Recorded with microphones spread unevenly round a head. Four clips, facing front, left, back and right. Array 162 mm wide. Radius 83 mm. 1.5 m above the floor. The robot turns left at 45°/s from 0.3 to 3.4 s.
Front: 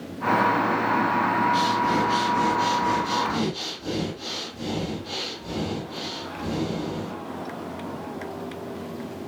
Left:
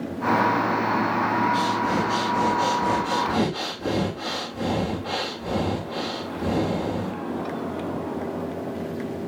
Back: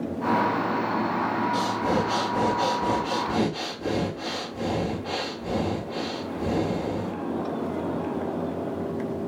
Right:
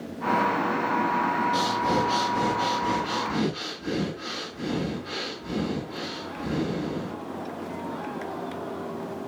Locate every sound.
1.5 s breathing: 150° right, 3 m; by 7.1 s 125° left, 3 m